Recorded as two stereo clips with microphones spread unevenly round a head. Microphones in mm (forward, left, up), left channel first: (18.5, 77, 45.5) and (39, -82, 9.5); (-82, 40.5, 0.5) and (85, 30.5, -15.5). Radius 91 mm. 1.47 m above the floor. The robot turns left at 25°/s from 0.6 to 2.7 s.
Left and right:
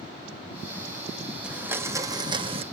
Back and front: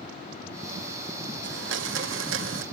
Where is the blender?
5° left, 1.8 m; by 2.6 s 25° right, 1.8 m.